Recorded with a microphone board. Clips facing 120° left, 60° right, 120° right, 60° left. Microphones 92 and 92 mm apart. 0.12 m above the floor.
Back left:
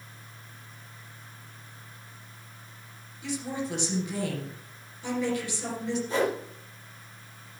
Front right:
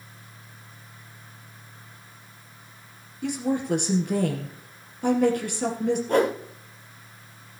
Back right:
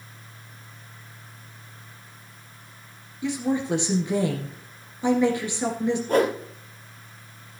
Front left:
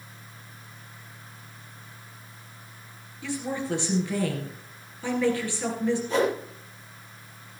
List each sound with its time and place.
3.2 s a woman speaking: 50° right, 2.5 m
6.1 s a whoosh: 90° right, 2 m